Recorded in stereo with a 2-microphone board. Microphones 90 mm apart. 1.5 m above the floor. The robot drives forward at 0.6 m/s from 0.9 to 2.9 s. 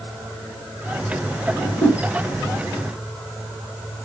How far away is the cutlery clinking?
No cutlery clinking in this recording.